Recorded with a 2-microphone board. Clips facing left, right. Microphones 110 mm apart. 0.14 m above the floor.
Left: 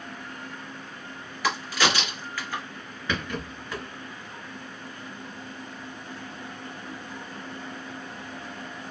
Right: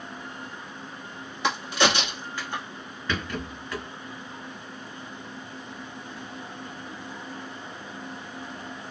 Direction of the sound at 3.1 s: 15° left (ahead or behind).